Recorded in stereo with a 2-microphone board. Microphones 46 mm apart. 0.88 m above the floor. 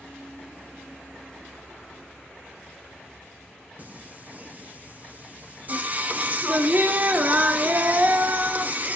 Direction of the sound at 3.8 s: 35° right (ahead or behind).